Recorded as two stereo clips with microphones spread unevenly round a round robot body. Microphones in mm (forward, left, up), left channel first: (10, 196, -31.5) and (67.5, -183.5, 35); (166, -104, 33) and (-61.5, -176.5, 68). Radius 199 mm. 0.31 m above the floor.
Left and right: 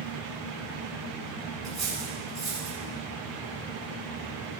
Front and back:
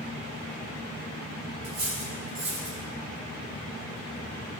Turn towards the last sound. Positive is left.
turn(degrees=-165)